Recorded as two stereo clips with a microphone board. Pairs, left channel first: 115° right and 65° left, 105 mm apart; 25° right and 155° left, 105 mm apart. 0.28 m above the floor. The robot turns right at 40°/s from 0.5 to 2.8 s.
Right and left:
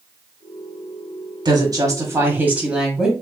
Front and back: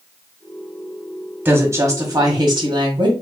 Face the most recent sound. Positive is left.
turn(degrees=145)